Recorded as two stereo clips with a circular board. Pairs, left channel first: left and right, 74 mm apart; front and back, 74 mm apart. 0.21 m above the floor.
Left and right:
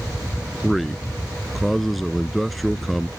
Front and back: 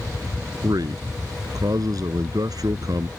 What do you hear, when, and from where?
0.6 s a man speaking: straight behind